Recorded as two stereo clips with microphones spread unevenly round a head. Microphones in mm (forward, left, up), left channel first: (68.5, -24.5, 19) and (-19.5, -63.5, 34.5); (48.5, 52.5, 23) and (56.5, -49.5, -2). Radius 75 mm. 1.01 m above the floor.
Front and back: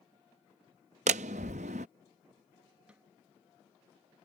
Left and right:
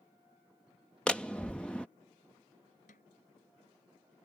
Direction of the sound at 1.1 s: Straight behind.